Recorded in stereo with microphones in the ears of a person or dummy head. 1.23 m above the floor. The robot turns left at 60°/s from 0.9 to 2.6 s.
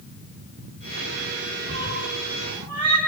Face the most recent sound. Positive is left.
turn(degrees=15)  # may be behind; listen again after turning